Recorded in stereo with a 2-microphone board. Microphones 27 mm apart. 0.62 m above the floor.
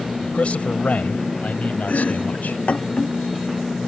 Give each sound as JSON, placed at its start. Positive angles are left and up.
{"t": 0.2, "sound": "a man speaking", "side_deg": 55}
{"t": 1.9, "sound": "chopping", "side_deg": 50}